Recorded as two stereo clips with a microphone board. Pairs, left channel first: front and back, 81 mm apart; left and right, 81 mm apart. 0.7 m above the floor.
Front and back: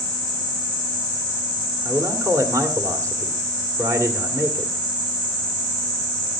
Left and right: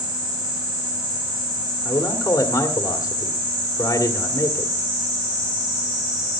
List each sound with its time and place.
1.9 s a man speaking: 130° left, 2 m